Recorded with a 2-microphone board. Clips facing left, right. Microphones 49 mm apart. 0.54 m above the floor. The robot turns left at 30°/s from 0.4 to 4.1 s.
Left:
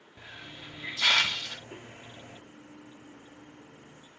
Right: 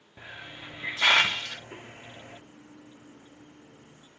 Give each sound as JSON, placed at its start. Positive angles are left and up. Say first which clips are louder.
{"t": 0.2, "sound": "a hiss", "louder": "right 3 dB", "side_deg": -20, "distance_m": 0.6}